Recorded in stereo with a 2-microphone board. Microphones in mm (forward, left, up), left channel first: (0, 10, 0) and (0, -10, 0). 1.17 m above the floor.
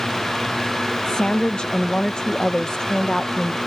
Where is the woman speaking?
60° left (ahead or behind).